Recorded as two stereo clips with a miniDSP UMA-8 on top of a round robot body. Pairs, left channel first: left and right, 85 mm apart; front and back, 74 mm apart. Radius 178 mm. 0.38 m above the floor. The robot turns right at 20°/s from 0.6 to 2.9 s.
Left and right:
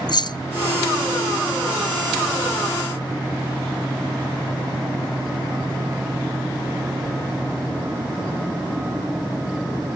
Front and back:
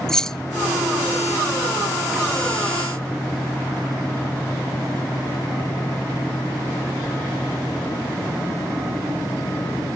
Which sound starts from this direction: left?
Keys jangling, at 0.1 s.